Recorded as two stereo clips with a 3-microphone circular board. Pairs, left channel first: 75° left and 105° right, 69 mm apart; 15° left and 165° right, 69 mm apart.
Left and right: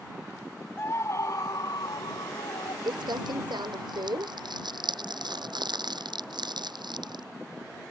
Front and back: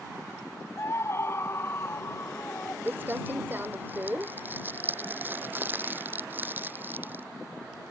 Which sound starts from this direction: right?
Crumpling, at 2.9 s.